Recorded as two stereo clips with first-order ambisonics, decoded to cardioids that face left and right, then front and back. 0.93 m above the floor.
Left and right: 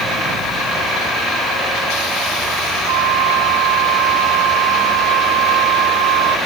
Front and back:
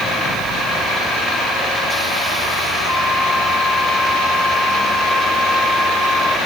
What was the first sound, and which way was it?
A flute, 85° right.